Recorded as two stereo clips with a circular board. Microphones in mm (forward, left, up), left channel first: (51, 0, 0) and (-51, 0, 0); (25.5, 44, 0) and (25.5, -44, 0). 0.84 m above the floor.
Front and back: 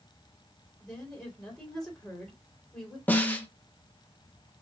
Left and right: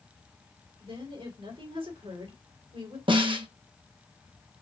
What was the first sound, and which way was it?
A woman speaking, 85° right.